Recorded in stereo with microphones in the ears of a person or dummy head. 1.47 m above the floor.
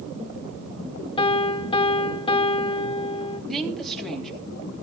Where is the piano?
25° left (ahead or behind), 0.7 m.